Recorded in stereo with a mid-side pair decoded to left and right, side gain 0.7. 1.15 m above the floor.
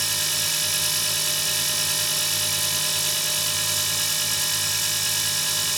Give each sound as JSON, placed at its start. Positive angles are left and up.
{"t": 0.0, "sound": "a machine running", "azimuth_deg": -10}